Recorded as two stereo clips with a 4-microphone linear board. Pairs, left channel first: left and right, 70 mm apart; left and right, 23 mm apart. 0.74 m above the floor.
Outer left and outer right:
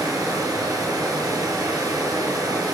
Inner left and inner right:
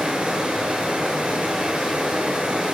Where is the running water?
60° right (ahead or behind), 6 m.